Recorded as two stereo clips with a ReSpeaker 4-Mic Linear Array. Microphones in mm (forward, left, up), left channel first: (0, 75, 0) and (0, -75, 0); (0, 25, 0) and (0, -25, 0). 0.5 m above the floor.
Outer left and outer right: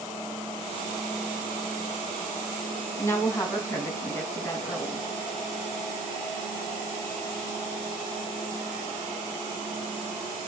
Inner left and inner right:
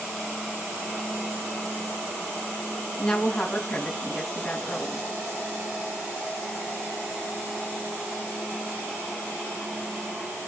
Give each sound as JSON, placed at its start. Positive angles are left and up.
{"t": 3.0, "sound": "a woman speaking", "side_deg": 20, "distance_m": 4.5}